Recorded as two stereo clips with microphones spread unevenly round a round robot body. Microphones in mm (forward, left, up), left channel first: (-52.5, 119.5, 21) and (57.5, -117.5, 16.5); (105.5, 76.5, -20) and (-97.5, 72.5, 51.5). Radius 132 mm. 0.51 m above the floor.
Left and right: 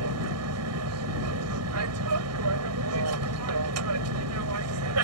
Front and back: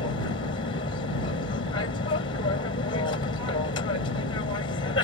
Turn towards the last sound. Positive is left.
turn(degrees=-50)